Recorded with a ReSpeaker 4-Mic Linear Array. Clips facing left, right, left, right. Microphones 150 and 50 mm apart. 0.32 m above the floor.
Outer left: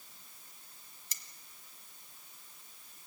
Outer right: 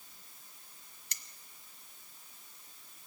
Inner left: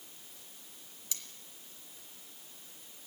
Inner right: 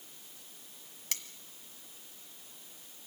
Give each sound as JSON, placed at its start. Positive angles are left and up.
{"t": 1.1, "sound": "cutlery clinking", "side_deg": -70, "distance_m": 1.3}